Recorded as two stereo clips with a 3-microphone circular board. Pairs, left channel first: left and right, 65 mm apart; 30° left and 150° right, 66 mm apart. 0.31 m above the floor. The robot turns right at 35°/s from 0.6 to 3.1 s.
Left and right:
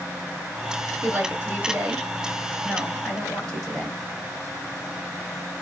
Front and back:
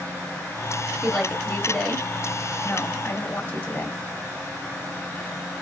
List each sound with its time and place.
1.0 s a woman speaking: 60° right, 1.8 m; by 4.0 s 15° left, 1.8 m